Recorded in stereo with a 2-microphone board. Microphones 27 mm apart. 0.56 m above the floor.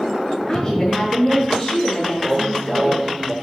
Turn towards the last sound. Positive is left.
turn(degrees=-25)  # may be behind; listen again after turning